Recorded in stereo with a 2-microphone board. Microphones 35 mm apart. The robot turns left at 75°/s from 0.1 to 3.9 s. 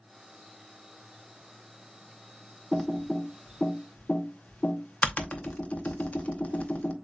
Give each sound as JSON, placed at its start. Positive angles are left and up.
{"t": 2.7, "sound": "typing on a keyboard", "side_deg": -15, "distance_m": 0.7}